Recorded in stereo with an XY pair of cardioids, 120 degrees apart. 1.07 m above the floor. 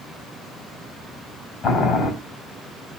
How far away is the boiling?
About 6 m.